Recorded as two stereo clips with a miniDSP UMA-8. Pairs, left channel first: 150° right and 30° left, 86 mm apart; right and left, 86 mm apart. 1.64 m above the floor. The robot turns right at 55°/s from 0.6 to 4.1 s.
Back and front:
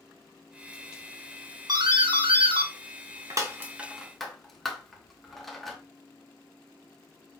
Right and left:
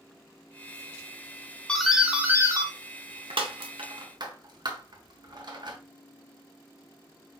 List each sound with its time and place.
1.7 s a doorbell: 10° right, 0.9 m; by 5.8 s 120° left, 0.9 m